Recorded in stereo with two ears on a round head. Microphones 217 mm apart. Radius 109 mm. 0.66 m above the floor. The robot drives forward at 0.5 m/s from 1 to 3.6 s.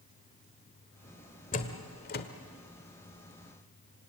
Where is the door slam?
35° left (ahead or behind), 1.7 m; by 2.3 s 40° left (ahead or behind), 1.4 m.